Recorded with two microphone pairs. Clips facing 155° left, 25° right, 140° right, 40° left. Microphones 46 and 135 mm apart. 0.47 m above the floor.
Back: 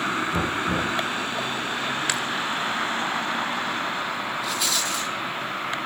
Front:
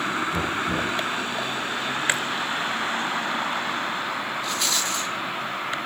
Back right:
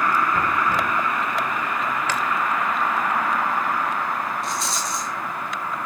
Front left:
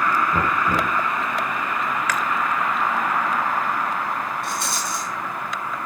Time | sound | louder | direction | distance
0.3 | knocking | back 1 dB, front left 1 dB | 90° left | 5 m
2.1 | chewing | front 6 dB, front left 1 dB | 85° right | 1.2 m
4.4 | a rattle | even, even | 70° left | 7 m